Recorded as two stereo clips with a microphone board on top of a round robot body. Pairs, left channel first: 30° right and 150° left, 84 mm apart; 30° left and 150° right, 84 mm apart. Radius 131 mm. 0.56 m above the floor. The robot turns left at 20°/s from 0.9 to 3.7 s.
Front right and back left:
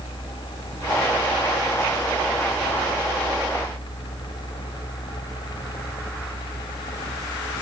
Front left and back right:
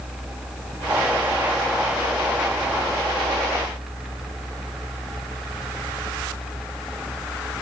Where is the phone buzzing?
I don't hear a phone buzzing.